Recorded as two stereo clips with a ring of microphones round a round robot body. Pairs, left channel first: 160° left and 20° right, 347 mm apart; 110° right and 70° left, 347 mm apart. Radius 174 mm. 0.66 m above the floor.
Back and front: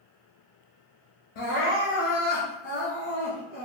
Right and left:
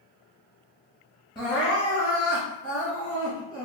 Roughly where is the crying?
Behind.